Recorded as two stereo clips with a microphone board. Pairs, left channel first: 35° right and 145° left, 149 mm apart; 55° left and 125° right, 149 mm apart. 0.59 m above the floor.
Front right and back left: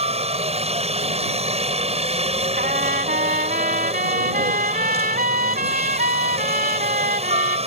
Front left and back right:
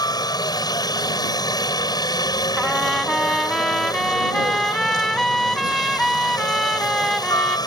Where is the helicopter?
115° left.